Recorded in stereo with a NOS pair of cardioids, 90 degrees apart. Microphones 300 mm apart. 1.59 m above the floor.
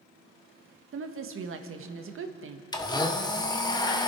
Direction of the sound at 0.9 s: 50° right.